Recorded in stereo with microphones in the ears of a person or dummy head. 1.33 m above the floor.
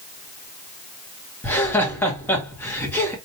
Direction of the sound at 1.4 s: 10° left (ahead or behind).